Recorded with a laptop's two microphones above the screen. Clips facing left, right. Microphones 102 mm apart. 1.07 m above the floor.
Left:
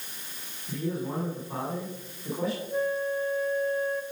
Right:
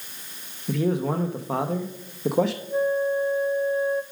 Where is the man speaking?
80° right, 0.9 m.